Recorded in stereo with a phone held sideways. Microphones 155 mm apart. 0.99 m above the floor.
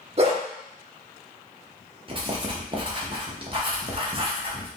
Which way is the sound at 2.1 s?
35° right (ahead or behind).